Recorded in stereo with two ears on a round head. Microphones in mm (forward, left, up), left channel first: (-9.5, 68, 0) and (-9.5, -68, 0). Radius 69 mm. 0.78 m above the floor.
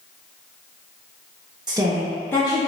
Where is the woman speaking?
30° right (ahead or behind), 0.7 m; by 2.7 s 35° left (ahead or behind), 0.7 m.